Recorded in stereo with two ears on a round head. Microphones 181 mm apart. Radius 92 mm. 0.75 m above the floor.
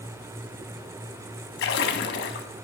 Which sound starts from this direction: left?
A splash, at 1.6 s.